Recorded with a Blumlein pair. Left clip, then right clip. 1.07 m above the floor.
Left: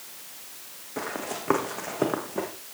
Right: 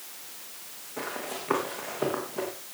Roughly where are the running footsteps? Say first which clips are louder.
Left 2 dB; ahead left.